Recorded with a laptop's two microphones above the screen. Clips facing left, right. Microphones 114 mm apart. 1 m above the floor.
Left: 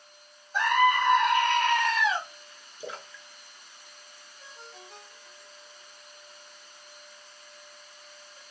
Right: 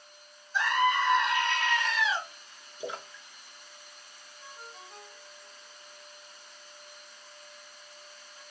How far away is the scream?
About 1.1 m.